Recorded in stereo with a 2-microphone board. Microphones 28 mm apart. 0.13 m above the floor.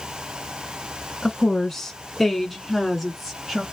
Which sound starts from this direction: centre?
A woman speaking, at 1.2 s.